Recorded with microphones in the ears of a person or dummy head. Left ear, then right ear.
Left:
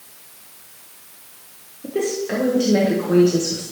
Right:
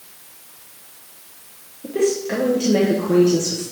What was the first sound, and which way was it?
A woman speaking, centre (ahead or behind).